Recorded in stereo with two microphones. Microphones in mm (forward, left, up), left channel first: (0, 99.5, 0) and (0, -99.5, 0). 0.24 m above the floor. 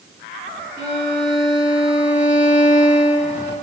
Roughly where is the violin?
Left.